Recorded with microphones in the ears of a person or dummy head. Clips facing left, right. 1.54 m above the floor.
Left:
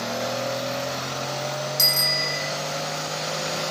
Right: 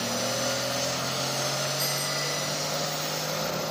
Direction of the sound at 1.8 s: 65° left (ahead or behind).